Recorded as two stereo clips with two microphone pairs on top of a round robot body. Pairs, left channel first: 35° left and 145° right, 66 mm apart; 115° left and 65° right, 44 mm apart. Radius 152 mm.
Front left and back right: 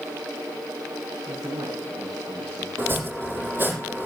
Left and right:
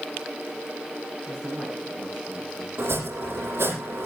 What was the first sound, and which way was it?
A man speaking, 145° right.